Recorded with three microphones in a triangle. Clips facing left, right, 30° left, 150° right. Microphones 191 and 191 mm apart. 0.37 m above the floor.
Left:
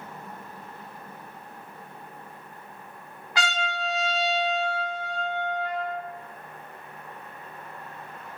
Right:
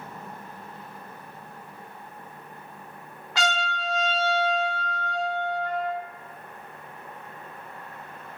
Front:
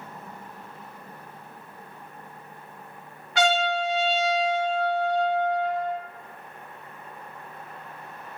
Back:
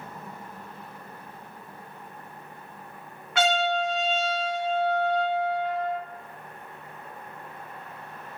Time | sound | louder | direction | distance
3.4 | a trumpet | right 1 dB, front 1 dB | 15° left | 1.2 m